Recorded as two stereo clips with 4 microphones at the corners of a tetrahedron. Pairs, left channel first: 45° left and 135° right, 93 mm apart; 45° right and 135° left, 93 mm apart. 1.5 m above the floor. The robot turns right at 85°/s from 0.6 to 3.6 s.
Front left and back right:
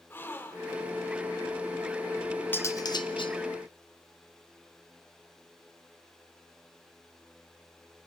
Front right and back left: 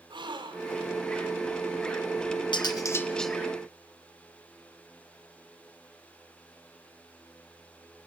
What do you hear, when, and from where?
0.1 s a gasp: 105° left, 2 m; by 0.9 s 135° left, 2 m
2.5 s cutlery clinking: 20° right, 1.2 m; by 3.4 s 50° left, 1.2 m